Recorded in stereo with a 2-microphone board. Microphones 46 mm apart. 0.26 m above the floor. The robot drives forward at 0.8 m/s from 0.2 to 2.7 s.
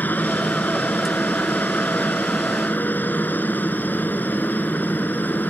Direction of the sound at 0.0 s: 45° left (ahead or behind).